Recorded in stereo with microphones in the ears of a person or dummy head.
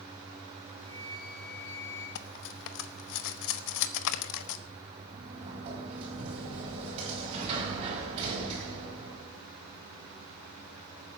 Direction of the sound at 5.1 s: 30° right (ahead or behind).